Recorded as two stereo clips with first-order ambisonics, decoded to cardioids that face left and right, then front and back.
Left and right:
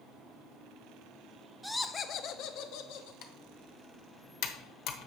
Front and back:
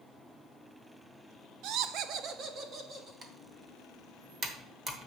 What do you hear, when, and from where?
1.6 s laughter: 170° right, 0.5 m; by 3.1 s 115° left, 1.3 m
3.2 s typing on a keyboard: 110° left, 1.0 m